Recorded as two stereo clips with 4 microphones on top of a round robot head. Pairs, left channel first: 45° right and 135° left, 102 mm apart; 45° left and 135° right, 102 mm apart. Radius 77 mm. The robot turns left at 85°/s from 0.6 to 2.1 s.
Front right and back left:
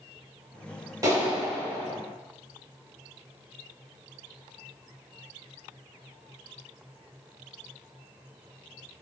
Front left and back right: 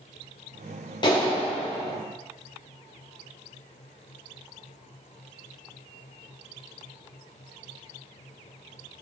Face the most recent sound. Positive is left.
turn(degrees=-10)